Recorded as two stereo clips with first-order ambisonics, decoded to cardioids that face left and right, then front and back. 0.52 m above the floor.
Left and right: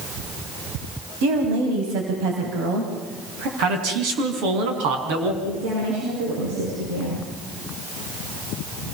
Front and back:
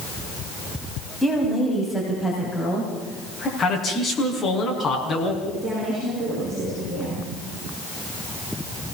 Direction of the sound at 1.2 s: 90° right.